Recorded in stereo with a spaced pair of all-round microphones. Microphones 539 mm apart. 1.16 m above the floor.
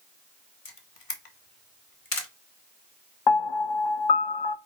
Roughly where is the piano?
Left.